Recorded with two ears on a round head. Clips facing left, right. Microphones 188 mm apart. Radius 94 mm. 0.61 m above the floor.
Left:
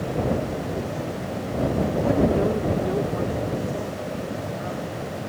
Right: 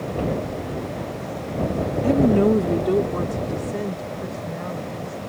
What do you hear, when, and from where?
2.0 s a woman speaking: 30° right (ahead or behind); by 5.3 s 45° right (ahead or behind)